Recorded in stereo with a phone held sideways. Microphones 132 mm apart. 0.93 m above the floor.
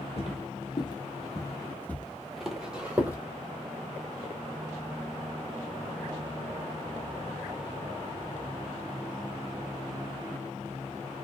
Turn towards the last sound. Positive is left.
turn(degrees=-15)  # may be behind; listen again after turning